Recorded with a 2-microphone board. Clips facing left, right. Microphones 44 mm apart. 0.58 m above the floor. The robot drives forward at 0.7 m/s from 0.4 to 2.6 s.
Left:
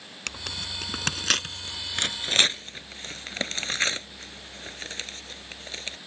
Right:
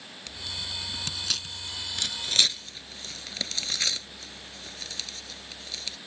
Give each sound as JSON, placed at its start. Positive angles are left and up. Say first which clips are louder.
{"t": 0.3, "sound": "tearing paper", "louder": "left 3 dB", "side_deg": 75}